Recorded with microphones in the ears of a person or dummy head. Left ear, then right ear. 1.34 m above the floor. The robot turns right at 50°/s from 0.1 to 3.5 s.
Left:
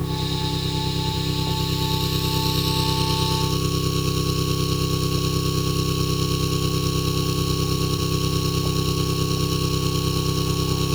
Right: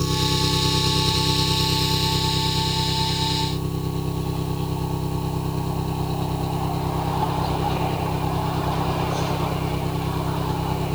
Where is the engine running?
95° right; by 10.9 s 75° left.